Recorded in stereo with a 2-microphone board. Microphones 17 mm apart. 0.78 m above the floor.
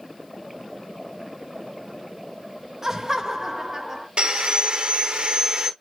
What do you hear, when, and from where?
2.8 s laughter: 30° right (ahead or behind), 0.8 m
4.2 s sawing: 75° right (ahead or behind), 1.1 m